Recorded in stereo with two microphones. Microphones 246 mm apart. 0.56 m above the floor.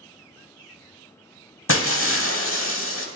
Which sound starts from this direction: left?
Breaking glass, at 1.7 s.